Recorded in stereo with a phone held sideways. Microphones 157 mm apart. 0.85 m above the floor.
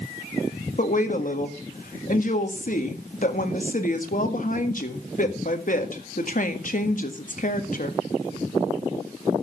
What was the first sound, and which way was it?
A woman speaking, 55° left (ahead or behind).